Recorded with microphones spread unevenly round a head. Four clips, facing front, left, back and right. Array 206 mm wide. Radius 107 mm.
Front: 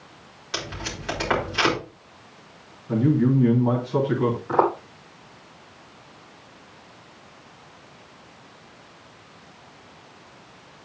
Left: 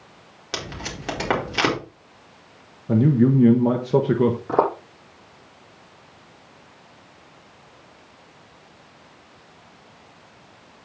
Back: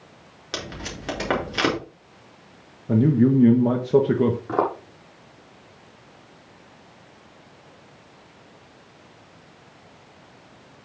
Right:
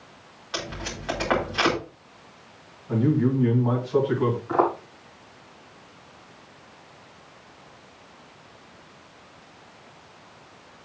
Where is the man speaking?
130° left, 1.5 m.